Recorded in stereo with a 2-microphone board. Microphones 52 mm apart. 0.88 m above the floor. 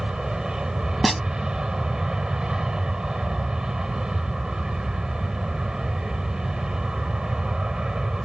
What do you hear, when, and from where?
0.0 s an aircraft: 15° right (ahead or behind)
1.0 s a snare drum: centre (ahead or behind)